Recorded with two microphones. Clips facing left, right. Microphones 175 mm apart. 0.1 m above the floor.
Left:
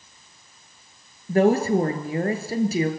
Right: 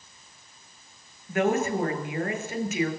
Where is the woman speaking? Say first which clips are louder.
Left 6 dB; 40° left (ahead or behind), 2.0 m.